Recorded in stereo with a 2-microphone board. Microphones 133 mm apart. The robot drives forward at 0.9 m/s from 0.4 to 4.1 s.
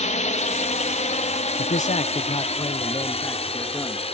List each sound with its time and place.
0.0 s a drone: 65° left (ahead or behind); by 4.2 s 50° left (ahead or behind)
1.6 s a man speaking: 80° left; by 4.1 s 20° left (ahead or behind)